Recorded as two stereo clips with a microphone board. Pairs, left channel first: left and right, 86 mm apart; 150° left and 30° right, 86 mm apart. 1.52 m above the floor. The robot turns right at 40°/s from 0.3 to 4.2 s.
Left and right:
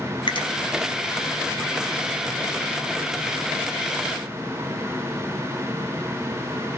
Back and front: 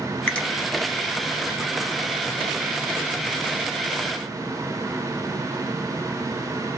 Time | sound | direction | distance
0.3 | a finger snap | 70° left | 0.6 m